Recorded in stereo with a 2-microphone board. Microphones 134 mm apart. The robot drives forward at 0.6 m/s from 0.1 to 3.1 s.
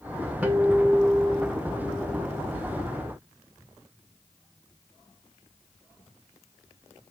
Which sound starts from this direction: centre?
A guitar, at 0.4 s.